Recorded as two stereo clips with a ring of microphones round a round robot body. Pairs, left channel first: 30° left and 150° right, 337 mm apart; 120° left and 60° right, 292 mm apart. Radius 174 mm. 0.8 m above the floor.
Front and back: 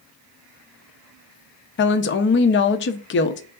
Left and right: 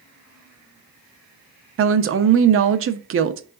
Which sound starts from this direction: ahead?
A woman speaking, at 1.8 s.